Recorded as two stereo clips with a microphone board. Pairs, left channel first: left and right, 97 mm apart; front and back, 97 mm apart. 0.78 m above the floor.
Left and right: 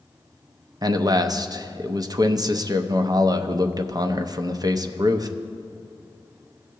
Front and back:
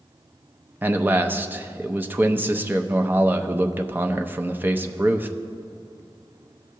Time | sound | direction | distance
0.8 | a man speaking | 115° right | 0.5 m